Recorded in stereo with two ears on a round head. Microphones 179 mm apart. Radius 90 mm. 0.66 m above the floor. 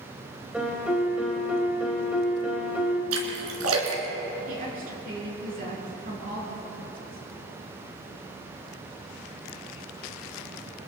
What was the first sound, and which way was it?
A piano, 5° right (ahead or behind).